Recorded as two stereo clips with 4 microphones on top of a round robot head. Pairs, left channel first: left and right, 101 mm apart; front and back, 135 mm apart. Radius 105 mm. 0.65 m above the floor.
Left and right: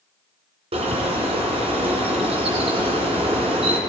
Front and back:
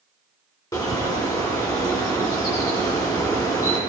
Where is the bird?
65° right, 2 m.